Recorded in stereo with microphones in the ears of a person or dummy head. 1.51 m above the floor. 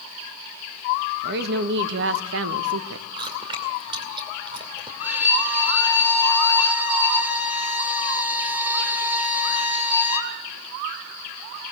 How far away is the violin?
About 2.5 m.